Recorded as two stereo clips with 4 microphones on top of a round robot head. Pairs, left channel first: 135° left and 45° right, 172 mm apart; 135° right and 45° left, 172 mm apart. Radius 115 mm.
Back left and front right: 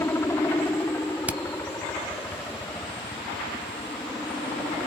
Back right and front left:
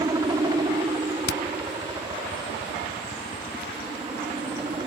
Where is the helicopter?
80° left; by 4.9 s 50° left.